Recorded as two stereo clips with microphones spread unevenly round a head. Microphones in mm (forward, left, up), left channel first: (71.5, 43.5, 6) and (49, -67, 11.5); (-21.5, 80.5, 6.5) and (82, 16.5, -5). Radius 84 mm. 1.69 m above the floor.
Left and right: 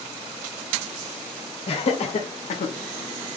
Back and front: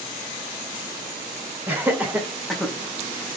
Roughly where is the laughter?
Ahead left.